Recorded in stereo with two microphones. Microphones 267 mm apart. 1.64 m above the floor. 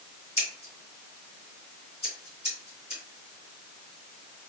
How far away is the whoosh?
No whoosh in this recording.